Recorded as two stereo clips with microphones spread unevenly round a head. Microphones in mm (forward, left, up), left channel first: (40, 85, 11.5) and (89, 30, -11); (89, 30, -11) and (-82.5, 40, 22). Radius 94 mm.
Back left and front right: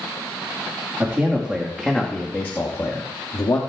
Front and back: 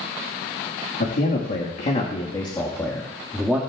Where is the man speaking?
15° left, 1.8 m; by 3.6 s 90° left, 1.9 m.